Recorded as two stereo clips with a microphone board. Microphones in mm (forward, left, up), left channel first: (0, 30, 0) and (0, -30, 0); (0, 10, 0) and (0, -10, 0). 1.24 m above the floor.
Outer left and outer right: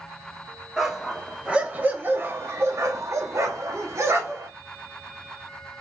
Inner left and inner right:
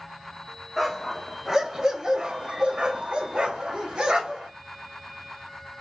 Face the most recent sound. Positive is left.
turn(degrees=-50)  # may be behind; listen again after turning